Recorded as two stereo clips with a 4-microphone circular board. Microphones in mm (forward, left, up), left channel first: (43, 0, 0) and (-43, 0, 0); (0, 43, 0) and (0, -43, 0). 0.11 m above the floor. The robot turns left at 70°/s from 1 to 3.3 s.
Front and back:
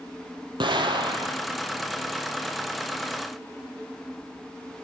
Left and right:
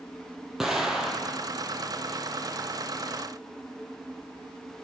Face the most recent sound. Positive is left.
turn(degrees=25)